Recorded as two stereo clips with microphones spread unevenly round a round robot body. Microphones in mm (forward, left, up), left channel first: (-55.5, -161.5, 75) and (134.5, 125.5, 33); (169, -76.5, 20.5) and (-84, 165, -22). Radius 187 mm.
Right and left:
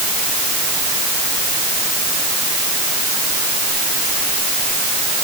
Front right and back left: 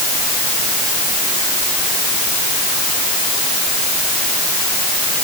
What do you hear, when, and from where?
Only background noise.